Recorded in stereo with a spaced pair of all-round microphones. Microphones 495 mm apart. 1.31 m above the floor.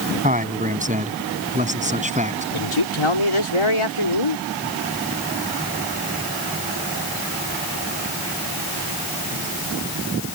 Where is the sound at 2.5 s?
80° left.